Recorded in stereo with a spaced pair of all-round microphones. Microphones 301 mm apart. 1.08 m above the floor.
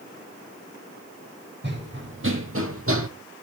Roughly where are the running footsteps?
Right.